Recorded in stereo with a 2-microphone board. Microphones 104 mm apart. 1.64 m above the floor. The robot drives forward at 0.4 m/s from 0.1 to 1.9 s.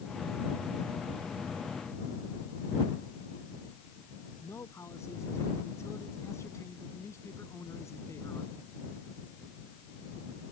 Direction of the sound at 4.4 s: 25° left (ahead or behind).